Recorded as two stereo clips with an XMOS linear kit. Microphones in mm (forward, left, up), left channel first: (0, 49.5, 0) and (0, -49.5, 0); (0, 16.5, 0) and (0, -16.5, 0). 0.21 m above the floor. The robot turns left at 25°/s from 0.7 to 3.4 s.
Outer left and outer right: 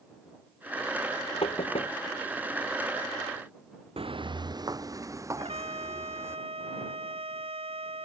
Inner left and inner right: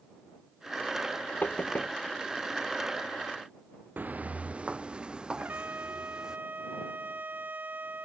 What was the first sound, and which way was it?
Knocking, 80° left.